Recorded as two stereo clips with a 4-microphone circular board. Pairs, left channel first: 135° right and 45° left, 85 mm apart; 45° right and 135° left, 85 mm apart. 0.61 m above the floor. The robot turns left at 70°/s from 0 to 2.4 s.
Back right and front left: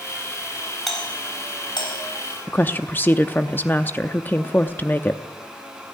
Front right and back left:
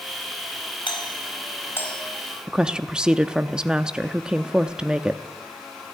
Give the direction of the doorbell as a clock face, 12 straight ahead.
2 o'clock.